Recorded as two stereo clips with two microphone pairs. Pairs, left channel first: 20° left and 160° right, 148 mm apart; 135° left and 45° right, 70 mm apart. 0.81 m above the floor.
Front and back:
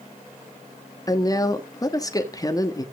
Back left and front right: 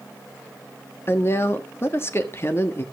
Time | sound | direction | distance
1.1 | a woman speaking | 85° left | 1.4 m